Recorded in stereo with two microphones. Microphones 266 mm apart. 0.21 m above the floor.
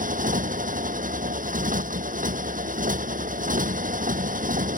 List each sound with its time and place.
0.0 s a motorcycle: 30° right (ahead or behind)